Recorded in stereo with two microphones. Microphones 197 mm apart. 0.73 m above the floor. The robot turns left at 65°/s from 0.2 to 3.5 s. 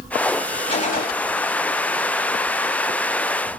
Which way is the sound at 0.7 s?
30° left (ahead or behind).